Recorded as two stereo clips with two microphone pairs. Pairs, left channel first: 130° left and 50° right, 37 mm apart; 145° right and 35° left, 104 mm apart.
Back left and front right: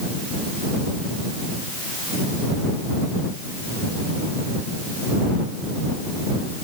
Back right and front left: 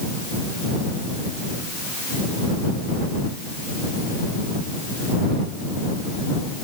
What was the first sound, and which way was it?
Only background noise.